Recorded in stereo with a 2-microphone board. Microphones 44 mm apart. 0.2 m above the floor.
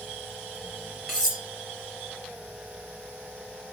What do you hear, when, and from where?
1.1 s cutlery clinking: 10° right (ahead or behind), 1.9 m